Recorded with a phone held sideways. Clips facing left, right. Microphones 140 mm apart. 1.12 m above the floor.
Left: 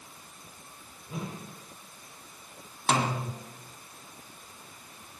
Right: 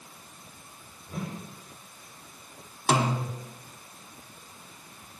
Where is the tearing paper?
I don't hear tearing paper.